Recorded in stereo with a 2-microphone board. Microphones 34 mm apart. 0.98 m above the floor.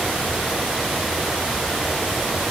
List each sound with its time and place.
Only background noise.